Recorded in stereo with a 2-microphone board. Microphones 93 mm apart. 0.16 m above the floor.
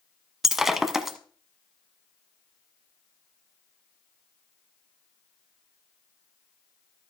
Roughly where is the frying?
No frying in this recording.